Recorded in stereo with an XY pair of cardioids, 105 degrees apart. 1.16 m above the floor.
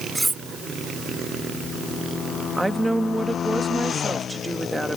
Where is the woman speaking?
10° right.